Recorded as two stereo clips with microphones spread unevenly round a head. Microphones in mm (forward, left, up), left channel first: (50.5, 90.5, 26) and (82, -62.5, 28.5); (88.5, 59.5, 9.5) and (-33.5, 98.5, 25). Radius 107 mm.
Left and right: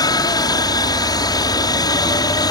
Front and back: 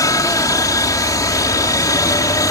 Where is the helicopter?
40° left.